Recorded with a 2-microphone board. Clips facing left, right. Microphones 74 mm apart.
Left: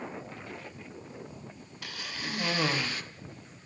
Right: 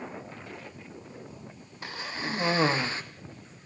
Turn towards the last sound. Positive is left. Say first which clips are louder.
# right 4 dB
turn(degrees=-30)  # may be behind; listen again after turning